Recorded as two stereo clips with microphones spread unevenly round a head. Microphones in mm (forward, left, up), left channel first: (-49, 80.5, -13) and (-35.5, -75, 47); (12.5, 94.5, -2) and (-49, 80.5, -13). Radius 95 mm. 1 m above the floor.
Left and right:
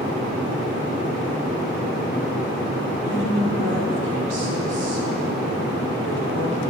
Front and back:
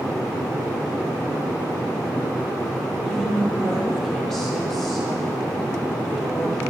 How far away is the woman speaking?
About 3 m.